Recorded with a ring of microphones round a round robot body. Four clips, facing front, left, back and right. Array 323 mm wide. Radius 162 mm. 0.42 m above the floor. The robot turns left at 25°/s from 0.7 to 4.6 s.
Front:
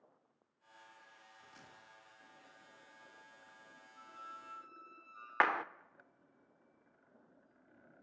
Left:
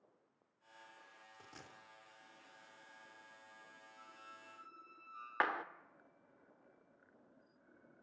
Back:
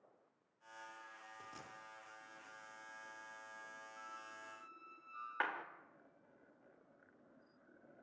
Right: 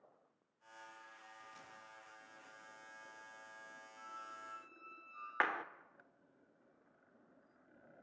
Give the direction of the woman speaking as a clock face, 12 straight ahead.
I don't hear a woman speaking.